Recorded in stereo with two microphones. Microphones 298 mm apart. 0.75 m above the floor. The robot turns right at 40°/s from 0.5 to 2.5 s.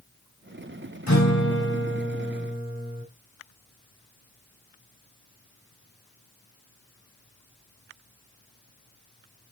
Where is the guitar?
75° left, 5.5 m; by 3.0 s 130° left, 5.5 m.